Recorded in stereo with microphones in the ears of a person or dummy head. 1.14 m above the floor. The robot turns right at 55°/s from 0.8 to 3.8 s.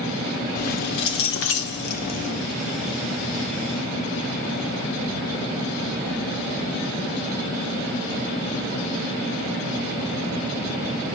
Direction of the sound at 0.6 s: 60° left.